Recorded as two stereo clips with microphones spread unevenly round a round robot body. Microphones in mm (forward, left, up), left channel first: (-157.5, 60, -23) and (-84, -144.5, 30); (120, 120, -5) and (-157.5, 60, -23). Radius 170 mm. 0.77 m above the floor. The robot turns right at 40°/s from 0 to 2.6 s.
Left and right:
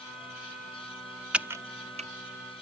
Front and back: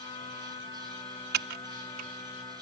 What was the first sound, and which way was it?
Typing on a keyboard, 160° right.